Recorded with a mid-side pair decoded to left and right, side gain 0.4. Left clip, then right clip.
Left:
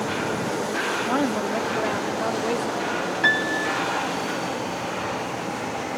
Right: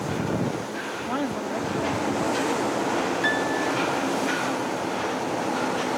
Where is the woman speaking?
30° left; by 3.0 s 60° left.